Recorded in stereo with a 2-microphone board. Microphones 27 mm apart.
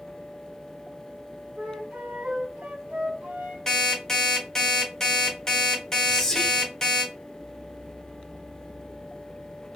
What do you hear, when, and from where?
1.6 s a flute: 60° right (ahead or behind), 1.1 m
3.7 s an alarm clock: 20° left (ahead or behind), 1.3 m
6.0 s whispering: 20° left (ahead or behind), 1.1 m